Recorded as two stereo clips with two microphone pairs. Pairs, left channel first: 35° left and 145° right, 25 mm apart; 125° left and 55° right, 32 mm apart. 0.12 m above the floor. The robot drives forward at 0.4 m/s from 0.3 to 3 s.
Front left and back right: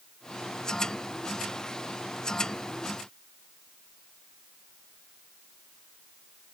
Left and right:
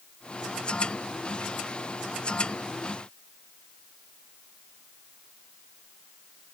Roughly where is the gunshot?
No gunshot in this recording.